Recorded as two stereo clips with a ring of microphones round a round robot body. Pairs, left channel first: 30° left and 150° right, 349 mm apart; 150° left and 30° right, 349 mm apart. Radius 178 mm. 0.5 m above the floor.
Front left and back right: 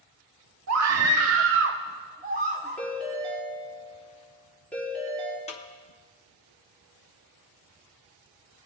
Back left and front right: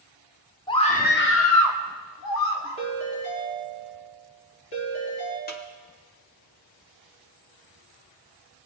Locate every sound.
0.7 s a scream: 135° right, 0.9 m; by 2.8 s 140° left, 1.4 m
2.8 s a ringtone: 115° left, 5 m
5.5 s a snare drum: 95° left, 1.0 m